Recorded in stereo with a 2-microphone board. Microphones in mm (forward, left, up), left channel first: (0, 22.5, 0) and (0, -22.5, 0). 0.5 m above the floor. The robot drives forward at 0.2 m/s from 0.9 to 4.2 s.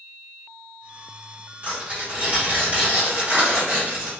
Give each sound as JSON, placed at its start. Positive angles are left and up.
{"t": 1.6, "sound": "tearing paper", "side_deg": -30, "distance_m": 1.2}